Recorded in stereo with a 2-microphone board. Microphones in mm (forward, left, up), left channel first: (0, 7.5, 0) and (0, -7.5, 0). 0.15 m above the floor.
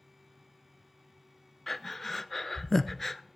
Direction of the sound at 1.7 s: 15° left (ahead or behind).